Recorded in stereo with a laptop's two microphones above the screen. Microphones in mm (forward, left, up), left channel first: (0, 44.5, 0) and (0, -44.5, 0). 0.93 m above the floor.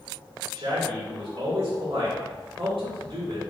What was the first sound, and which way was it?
A man speaking, 75° right (ahead or behind).